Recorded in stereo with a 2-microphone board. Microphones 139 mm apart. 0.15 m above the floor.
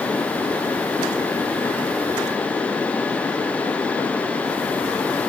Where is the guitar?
I don't hear a guitar.